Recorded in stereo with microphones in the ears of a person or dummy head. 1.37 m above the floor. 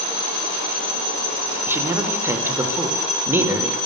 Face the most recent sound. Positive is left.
turn(degrees=-10)  # may be behind; listen again after turning